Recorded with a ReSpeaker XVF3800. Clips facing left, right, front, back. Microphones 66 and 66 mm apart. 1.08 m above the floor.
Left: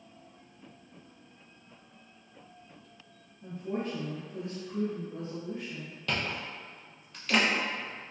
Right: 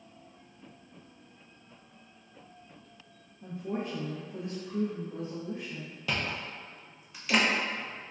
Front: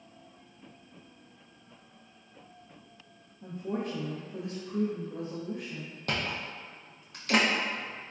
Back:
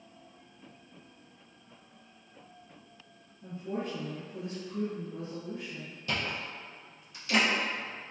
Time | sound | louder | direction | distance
3.4 | a woman speaking | left 1 dB, front 2 dB | 25° right | 0.6 m
6.1 | chewing | even, front 1 dB | 5° right | 0.6 m